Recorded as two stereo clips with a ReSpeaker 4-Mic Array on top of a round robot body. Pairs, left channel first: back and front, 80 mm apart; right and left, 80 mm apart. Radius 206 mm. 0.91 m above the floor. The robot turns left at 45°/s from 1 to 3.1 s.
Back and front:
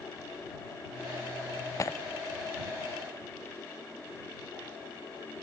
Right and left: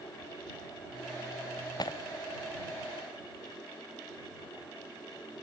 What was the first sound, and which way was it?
Breaking glass, 125° right.